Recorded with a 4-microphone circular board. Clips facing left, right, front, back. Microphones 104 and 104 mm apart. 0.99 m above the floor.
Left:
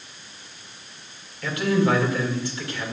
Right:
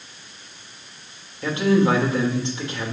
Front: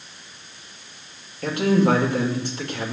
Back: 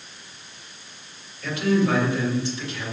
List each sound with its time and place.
1.4 s a man speaking: 25° right, 2.5 m